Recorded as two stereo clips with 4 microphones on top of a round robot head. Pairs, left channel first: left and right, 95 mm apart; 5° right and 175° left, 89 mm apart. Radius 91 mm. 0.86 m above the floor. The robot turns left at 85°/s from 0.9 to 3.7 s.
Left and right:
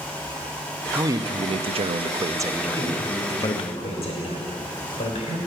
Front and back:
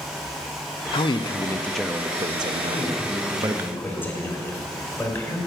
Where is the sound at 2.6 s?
155° left, 3.5 m; by 5.4 s 65° left, 3.5 m.